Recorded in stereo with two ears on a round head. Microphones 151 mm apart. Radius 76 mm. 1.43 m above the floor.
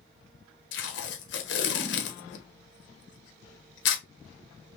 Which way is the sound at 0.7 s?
75° left (ahead or behind).